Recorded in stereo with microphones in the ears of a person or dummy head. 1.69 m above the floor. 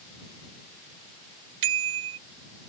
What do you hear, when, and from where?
1.6 s a bicycle bell: 70° right (ahead or behind)